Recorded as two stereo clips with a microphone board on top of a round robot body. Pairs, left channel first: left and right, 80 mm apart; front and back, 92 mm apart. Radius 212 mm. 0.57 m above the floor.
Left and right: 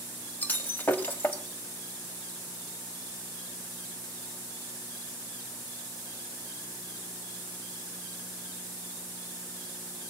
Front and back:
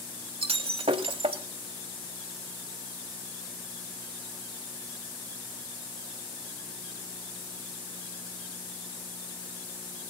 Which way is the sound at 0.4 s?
160° left.